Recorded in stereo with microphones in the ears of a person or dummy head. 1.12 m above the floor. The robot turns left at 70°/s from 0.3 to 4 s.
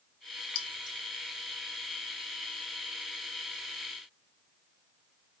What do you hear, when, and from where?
0.6 s keys jangling: 40° left (ahead or behind), 0.8 m; by 1.0 s 10° left (ahead or behind), 0.8 m